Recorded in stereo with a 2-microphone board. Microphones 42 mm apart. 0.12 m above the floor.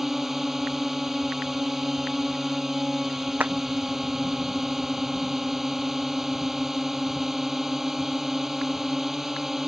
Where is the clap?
40° right (ahead or behind).